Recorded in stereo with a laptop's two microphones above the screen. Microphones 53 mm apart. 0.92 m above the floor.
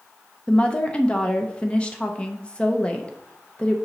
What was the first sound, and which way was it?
A woman speaking, 20° left (ahead or behind).